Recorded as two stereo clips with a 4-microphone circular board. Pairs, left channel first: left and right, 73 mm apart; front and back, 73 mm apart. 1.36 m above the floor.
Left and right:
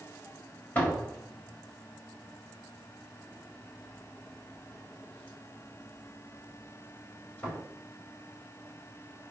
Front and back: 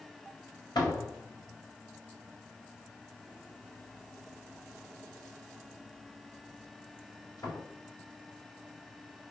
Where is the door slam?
20° left, 4 m.